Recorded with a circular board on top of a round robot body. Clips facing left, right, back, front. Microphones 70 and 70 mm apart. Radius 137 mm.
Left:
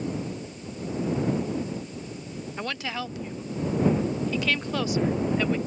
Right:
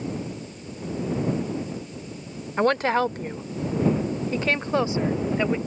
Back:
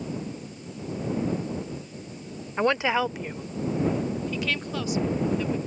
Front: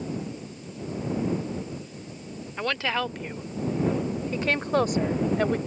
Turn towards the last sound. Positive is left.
turn(degrees=-20)